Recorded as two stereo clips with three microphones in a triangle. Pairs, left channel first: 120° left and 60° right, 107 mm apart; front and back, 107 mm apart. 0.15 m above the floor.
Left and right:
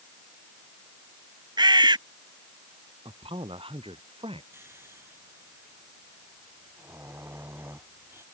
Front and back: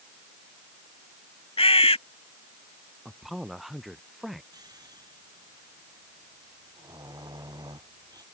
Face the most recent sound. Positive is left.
turn(degrees=-125)